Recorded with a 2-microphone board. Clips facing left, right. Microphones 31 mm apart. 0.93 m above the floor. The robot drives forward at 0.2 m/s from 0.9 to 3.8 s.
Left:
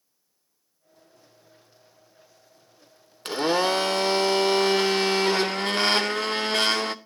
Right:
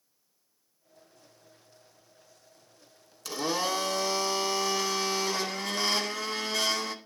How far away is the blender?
About 0.5 m.